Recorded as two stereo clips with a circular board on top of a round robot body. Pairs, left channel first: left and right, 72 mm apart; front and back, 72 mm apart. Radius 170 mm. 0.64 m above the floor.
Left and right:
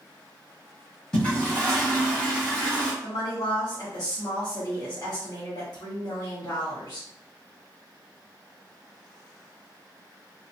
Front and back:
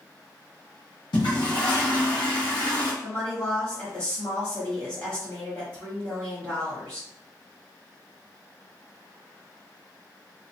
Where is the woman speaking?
75° left, 1.7 m.